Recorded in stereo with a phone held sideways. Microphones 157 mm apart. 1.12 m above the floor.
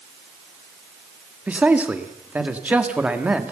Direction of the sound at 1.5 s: 10° right (ahead or behind).